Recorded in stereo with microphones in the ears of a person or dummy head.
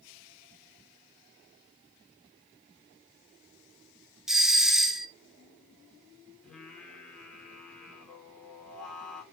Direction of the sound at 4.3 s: 5° right (ahead or behind).